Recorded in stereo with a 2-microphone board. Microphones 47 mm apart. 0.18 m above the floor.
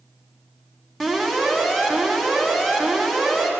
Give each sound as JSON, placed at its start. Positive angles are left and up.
{"t": 1.0, "sound": "an alarm", "side_deg": 0, "distance_m": 2.0}